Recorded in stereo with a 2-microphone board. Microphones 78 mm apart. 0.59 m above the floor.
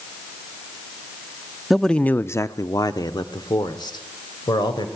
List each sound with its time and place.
1.7 s a man speaking: centre (ahead or behind), 0.6 m; by 4.9 s 70° left (ahead or behind), 2 m